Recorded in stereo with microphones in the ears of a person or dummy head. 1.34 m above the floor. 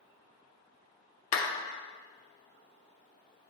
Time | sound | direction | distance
1.3 | a clap | 35° left (ahead or behind) | 0.7 m